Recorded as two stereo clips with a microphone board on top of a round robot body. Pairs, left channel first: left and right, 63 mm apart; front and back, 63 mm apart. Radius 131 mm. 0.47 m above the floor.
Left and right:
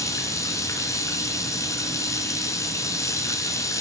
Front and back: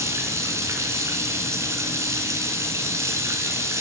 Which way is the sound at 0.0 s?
130° left.